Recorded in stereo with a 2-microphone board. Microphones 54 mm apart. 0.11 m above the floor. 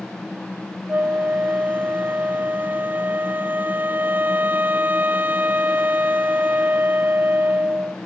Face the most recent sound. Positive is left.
turn(degrees=-35)  # may be behind; listen again after turning